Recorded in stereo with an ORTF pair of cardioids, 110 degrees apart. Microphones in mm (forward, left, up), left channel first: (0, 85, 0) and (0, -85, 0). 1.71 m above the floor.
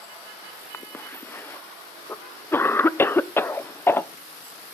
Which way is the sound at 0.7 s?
15° left.